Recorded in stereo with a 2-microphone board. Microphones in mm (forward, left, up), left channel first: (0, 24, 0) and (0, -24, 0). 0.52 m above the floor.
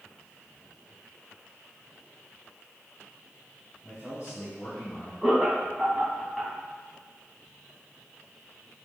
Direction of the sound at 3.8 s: 45° left (ahead or behind).